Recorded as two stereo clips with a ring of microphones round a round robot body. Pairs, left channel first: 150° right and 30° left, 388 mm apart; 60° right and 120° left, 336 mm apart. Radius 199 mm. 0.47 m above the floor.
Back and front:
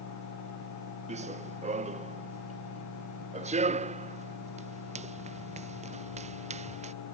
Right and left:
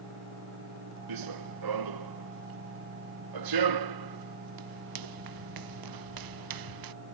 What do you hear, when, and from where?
1.1 s running footsteps: 105° left